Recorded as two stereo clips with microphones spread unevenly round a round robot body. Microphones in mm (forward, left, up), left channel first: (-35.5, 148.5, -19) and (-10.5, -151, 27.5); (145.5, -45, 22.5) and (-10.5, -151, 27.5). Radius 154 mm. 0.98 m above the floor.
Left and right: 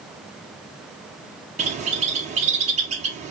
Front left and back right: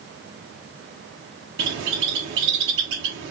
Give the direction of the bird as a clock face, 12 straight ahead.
5 o'clock.